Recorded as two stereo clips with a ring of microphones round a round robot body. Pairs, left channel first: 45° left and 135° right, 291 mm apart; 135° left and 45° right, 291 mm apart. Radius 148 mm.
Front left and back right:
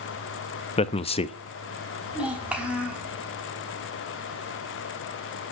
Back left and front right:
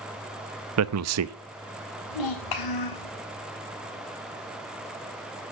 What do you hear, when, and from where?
0.8 s a man speaking: 25° right, 0.9 m
2.1 s a child speaking: 140° left, 5.5 m